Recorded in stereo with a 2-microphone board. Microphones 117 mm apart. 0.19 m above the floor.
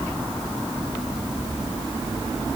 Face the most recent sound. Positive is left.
No sound to turn to.